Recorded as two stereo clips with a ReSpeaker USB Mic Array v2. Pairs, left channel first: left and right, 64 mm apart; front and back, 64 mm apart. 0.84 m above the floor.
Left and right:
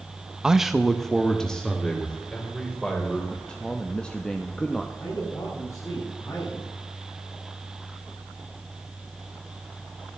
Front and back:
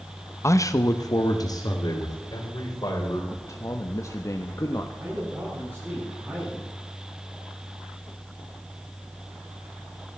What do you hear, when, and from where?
0.4 s a man speaking: 15° right, 0.7 m; by 3.2 s 15° left, 3.5 m
3.3 s a man speaking: 20° left, 1.0 m
5.0 s a man speaking: 130° left, 7 m